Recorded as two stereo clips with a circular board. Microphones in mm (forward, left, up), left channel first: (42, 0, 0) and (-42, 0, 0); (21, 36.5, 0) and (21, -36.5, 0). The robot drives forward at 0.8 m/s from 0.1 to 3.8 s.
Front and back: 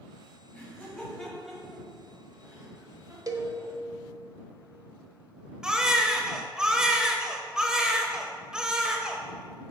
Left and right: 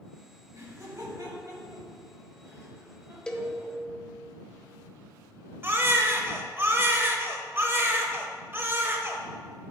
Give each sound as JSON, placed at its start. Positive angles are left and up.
{"t": 0.5, "sound": "laughter", "azimuth_deg": -60, "distance_m": 2.5}
{"t": 3.3, "sound": "a cowbell", "azimuth_deg": 165, "distance_m": 0.5}
{"t": 5.6, "sound": "a baby crying", "azimuth_deg": -105, "distance_m": 0.6}